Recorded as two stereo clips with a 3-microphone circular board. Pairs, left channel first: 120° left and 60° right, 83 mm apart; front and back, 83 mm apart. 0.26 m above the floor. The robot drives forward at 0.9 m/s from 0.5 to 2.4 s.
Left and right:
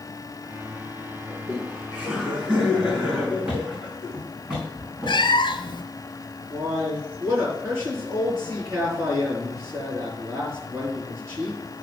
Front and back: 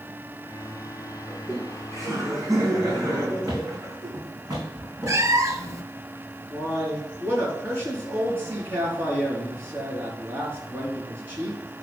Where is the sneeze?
I don't hear a sneeze.